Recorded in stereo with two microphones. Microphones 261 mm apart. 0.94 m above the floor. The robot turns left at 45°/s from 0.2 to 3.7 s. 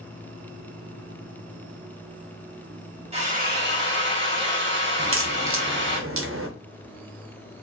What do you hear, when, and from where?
3.1 s a drill: 25° right (ahead or behind), 1.1 m; by 6.0 s 50° right (ahead or behind), 1.1 m
5.0 s a crack: 60° right (ahead or behind), 0.5 m